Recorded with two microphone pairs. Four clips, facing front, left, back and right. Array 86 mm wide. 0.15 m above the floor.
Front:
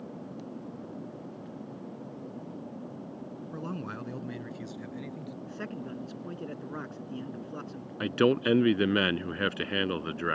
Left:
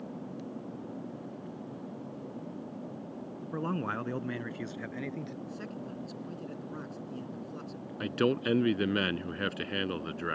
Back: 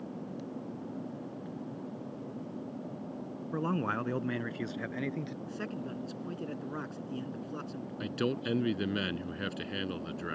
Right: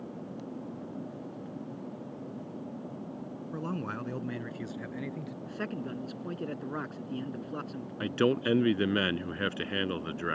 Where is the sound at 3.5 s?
145° left; by 5.4 s 175° left.